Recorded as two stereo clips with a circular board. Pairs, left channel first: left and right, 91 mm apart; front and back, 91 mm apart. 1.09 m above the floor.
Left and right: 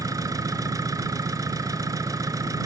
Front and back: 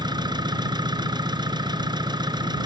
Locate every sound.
0.0 s an engine running: 140° right